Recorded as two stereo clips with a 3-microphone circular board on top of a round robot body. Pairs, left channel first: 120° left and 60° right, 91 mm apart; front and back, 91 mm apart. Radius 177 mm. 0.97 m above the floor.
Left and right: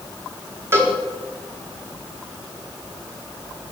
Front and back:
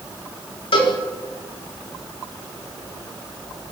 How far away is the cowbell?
About 4.5 m.